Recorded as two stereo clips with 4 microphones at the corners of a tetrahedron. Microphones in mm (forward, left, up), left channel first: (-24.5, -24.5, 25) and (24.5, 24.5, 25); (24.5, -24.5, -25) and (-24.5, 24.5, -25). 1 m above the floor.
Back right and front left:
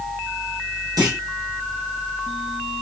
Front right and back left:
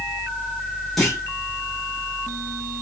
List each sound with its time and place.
1.0 s a clunk: 45° left, 2 m